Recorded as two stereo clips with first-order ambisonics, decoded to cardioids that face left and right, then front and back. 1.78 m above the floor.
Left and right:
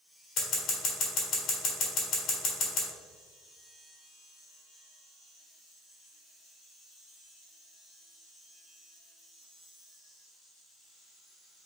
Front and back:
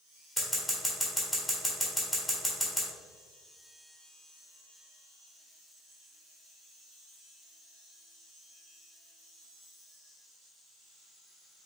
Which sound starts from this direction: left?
Scissors, at 0.4 s.